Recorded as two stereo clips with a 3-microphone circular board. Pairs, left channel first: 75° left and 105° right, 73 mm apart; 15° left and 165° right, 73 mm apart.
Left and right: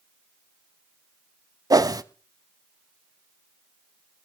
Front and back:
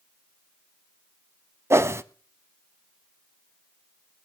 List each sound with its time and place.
1.7 s a whoosh: 120° right, 0.6 m